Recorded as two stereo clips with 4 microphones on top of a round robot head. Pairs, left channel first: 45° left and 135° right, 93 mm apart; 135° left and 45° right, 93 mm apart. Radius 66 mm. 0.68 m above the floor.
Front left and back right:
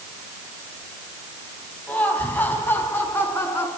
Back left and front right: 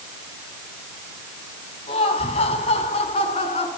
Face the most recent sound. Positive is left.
turn(degrees=115)